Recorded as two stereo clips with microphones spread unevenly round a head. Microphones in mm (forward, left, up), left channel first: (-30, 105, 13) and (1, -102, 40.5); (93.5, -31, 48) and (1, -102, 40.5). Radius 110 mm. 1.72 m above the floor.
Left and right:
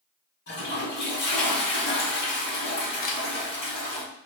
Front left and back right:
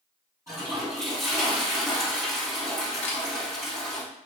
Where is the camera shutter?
45° left, 0.6 m.